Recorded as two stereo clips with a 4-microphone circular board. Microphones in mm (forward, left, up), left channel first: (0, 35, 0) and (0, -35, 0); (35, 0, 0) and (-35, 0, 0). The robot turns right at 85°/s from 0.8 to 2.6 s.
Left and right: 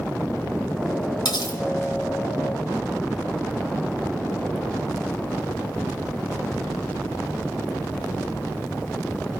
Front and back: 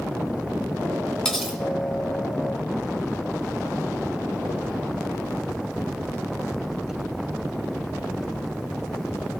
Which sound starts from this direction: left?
Cutlery clinking, at 1.2 s.